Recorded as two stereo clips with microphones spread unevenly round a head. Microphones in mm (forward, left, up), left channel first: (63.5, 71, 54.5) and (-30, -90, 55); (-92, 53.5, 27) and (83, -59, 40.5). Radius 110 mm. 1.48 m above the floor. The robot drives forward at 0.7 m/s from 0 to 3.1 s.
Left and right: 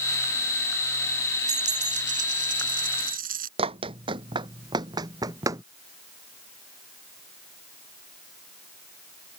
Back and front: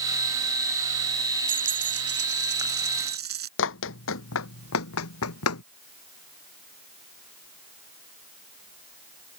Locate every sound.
1.5 s a dropped coin: 65° right; by 3.5 s 75° right
3.6 s running footsteps: 175° left; by 5.6 s 165° left